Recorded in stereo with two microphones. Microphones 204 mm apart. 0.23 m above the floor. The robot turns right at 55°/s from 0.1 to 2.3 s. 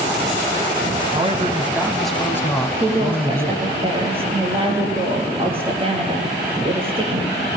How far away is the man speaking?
About 1.5 m.